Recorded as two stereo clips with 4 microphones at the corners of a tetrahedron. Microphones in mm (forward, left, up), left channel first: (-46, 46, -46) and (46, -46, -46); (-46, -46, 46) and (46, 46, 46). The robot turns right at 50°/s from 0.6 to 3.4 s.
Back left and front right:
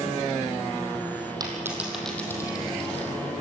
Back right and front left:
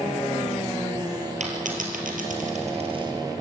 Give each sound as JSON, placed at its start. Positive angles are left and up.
{"t": 1.4, "sound": "a dropped coin", "azimuth_deg": 15, "distance_m": 3.5}